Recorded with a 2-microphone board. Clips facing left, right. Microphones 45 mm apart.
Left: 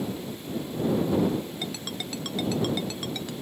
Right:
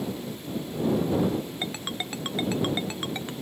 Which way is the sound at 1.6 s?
25° right (ahead or behind).